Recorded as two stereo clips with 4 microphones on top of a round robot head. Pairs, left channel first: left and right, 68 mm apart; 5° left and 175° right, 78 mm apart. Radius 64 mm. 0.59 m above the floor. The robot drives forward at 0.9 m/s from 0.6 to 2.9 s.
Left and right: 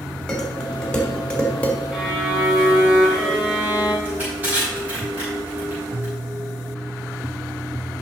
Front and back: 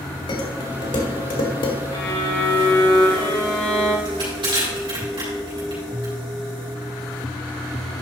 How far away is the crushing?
About 4.5 m.